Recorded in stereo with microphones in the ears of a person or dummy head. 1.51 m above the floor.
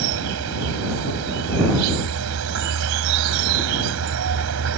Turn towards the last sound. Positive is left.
turn(degrees=-80)